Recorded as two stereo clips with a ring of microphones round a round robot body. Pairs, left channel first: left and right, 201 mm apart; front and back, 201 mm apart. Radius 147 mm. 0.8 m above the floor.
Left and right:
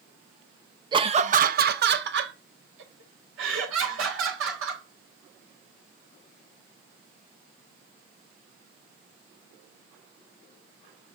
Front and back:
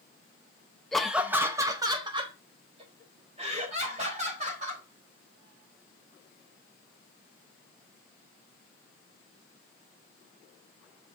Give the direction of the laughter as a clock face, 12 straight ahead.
3 o'clock.